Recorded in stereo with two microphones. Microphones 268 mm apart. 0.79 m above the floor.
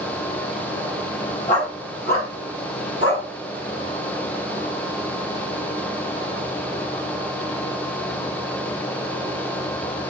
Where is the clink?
No clink in this recording.